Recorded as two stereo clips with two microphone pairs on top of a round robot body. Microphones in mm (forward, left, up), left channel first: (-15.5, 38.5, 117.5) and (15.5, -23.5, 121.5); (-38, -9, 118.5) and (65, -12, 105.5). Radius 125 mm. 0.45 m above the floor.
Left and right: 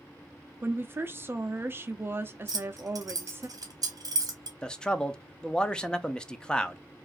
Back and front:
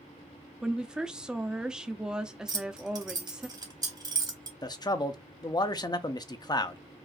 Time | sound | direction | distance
0.6 | a woman speaking | 60° right | 0.8 m
2.5 | keys jangling | 40° right | 1.6 m
4.6 | a man speaking | straight behind | 0.8 m